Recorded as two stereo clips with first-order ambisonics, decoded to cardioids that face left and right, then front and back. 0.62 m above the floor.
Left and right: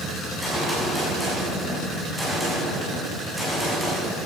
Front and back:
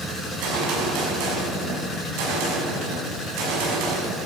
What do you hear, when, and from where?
0.2 s a gunshot: straight behind, 5.5 m